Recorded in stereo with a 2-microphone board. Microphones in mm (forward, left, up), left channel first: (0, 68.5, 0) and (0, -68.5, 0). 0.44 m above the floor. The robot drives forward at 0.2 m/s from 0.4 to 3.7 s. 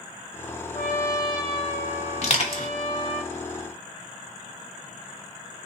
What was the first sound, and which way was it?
A trumpet, 45° left (ahead or behind).